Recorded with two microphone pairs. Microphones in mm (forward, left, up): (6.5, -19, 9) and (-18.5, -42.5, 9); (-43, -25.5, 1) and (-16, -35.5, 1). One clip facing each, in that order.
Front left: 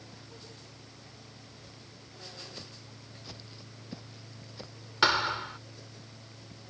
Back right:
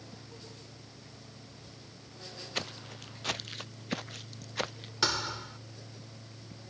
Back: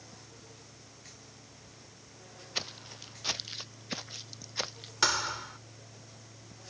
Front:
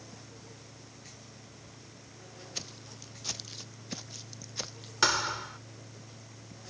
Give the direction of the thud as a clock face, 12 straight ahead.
10 o'clock.